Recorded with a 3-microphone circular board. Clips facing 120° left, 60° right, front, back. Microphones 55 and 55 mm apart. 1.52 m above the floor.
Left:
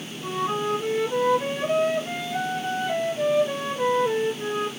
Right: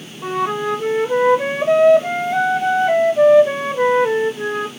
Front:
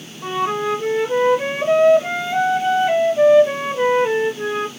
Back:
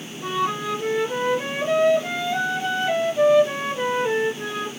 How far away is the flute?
About 0.7 m.